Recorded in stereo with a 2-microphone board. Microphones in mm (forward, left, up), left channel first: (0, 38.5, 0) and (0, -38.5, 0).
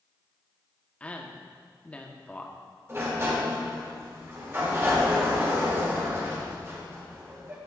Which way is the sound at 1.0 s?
15° left (ahead or behind).